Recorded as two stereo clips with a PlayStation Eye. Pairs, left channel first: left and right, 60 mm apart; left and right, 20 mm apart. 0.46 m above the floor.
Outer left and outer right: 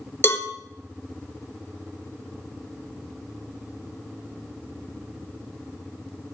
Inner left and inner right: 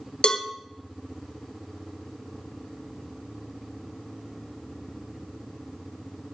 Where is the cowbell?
50° left (ahead or behind), 1.0 m.